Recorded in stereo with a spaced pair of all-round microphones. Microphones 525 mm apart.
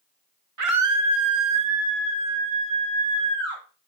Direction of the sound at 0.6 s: 75° right (ahead or behind).